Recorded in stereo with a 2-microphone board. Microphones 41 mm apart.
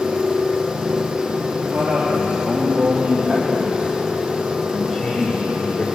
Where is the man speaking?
55° right (ahead or behind), 5 m; by 5.8 s 35° left (ahead or behind), 3 m.